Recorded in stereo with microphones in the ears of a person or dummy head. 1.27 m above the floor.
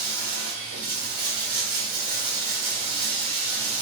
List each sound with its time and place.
0.0 s running water: 55° right (ahead or behind), 1.6 m